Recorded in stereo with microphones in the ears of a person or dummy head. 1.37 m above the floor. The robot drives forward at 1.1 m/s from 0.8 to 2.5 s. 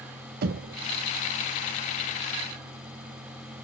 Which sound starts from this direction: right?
Knocking, at 0.4 s.